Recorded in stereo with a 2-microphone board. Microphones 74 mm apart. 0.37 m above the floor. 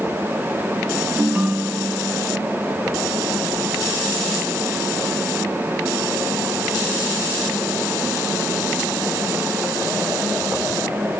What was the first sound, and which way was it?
A ringtone, 20° right (ahead or behind).